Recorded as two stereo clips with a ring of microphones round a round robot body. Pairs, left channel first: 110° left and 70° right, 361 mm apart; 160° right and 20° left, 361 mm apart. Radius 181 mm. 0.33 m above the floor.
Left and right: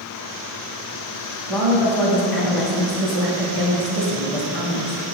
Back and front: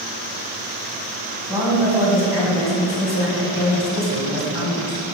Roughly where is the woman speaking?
Left.